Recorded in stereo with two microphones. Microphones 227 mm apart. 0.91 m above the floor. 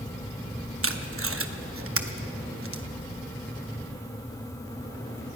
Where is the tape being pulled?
70° right (ahead or behind), 0.9 m.